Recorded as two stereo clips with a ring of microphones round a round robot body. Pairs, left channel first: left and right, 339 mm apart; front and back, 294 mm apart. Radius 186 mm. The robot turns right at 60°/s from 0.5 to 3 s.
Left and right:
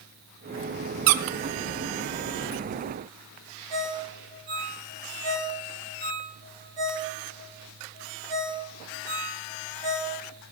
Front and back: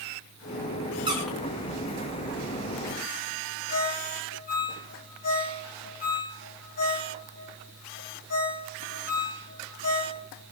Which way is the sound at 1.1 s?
105° right.